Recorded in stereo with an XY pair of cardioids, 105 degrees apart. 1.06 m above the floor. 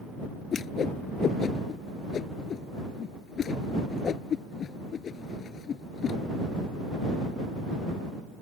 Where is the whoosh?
50° left.